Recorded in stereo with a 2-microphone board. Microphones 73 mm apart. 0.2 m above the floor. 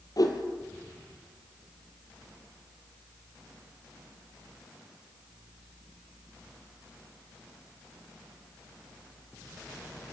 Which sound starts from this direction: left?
A whoosh, at 0.2 s.